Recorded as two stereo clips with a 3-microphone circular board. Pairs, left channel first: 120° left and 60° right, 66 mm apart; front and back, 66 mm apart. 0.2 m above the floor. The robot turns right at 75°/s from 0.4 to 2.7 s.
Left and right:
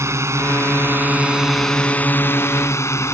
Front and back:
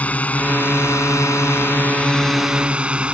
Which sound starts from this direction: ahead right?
A drone, at 0.0 s.